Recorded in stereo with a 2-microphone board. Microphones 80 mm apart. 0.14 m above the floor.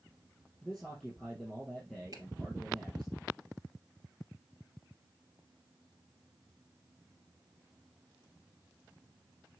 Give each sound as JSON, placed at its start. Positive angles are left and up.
{"t": 0.6, "sound": "a man speaking", "side_deg": 0, "distance_m": 3.5}
{"t": 2.1, "sound": "a finger snap", "side_deg": -55, "distance_m": 2.5}